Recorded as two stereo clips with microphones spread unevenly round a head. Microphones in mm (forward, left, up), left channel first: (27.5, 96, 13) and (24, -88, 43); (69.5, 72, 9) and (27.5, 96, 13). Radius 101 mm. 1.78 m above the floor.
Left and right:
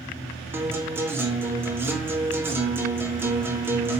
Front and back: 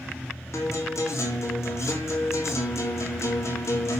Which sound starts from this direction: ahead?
A guitar, at 0.5 s.